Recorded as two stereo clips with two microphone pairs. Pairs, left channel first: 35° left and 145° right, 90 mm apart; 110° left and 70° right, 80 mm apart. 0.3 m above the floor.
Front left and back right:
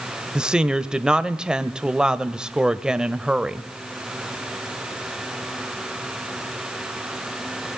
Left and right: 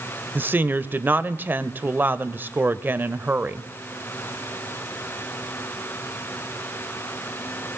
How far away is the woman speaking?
About 0.9 m.